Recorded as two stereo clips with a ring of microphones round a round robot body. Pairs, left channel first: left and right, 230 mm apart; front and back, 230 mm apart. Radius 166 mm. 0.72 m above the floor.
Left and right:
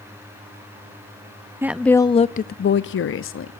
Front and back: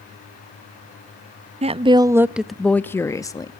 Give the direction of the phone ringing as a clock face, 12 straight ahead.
No phone ringing in this recording.